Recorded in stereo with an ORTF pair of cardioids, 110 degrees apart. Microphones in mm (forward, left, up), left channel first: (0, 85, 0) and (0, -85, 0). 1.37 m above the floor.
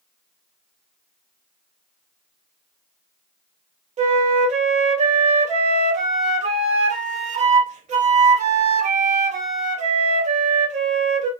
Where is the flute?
45° right, 0.6 m.